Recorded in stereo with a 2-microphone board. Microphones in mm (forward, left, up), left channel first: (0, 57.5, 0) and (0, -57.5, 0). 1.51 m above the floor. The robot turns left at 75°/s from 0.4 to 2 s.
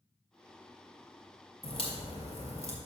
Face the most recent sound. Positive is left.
turn(degrees=60)  # may be behind; listen again after turning